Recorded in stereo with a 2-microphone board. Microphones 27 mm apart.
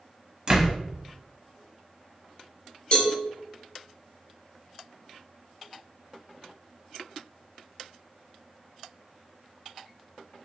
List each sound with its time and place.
0.5 s a door slam: 35° right (ahead or behind), 0.8 m
2.9 s a cowbell: 40° left (ahead or behind), 0.9 m